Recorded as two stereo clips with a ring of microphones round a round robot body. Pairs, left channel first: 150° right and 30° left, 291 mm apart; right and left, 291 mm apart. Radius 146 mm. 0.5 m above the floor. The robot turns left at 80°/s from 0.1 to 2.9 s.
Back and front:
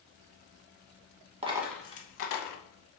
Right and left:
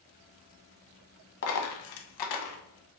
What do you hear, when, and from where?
1.4 s a dropped coin: 40° right, 0.7 m; by 2.6 s 130° right, 0.7 m